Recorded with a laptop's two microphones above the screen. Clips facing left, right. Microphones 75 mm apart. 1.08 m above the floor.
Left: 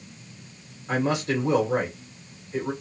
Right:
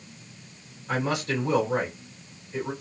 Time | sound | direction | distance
0.9 | a man speaking | 25° left (ahead or behind) | 1.2 m